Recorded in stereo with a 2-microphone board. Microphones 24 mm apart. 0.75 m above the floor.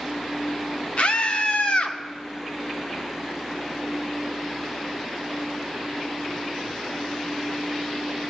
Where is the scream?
55° left (ahead or behind), 1.8 m.